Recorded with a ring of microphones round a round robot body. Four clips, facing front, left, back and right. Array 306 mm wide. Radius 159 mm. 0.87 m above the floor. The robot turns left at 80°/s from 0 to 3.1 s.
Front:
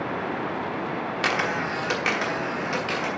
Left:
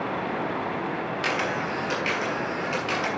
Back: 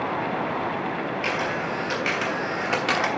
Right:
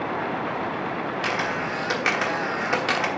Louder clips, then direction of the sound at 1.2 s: Left 1 dB, front 1 dB; straight ahead.